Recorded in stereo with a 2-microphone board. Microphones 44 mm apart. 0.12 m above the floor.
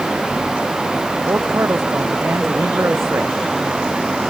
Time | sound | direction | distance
1.3 | a man speaking | 80° right | ?